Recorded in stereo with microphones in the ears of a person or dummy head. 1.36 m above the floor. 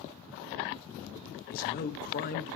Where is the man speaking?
50° left (ahead or behind), 2.0 m.